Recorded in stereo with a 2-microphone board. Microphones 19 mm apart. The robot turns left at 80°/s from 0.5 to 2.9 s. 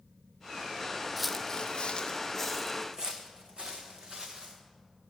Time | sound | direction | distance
1.2 | footsteps | 10° right (ahead or behind) | 0.5 m